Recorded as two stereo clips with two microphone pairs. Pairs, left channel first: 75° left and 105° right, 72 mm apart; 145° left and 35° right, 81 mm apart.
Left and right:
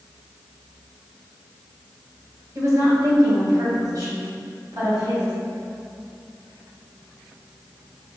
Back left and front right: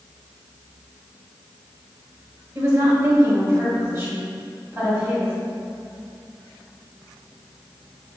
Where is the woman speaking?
75° right, 2 m; by 5.3 s 95° right, 4 m.